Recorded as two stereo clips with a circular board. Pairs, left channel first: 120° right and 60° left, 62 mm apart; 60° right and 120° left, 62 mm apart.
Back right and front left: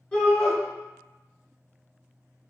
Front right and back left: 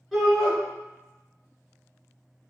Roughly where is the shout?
Behind right.